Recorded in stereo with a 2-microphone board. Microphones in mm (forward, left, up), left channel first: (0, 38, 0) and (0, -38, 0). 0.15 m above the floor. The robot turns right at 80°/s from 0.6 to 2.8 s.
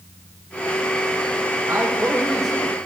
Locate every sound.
1.7 s a man speaking: 65° right, 3 m; by 2.8 s 25° left, 3 m